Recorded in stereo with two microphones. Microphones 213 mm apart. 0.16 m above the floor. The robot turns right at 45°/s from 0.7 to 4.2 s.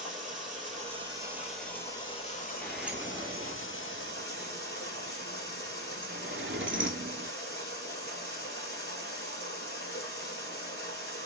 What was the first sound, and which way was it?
Running water, 40° right.